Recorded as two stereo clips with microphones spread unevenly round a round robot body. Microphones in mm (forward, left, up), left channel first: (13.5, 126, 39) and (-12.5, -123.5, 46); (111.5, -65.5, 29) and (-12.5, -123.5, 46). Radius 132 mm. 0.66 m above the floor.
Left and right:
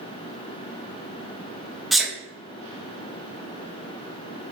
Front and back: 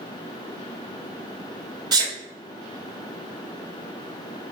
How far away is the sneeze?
About 0.6 m.